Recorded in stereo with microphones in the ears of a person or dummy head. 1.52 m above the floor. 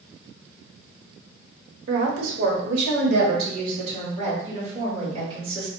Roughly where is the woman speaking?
Right.